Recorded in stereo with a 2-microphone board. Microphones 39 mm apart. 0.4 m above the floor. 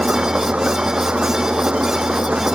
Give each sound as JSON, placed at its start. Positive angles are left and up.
{"t": 0.0, "sound": "an engine running", "side_deg": -30}